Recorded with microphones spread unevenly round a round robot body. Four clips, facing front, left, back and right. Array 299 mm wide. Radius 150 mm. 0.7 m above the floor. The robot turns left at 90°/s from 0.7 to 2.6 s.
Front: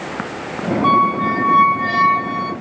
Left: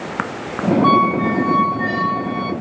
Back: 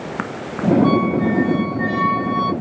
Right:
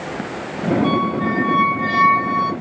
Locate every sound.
0.8 s a squeak: 55° left, 2 m; by 2.5 s 95° right, 2 m